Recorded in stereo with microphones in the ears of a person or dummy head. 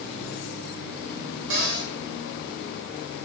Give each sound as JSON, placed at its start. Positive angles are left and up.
{"t": 1.5, "sound": "a cupboard door", "side_deg": -70, "distance_m": 2.5}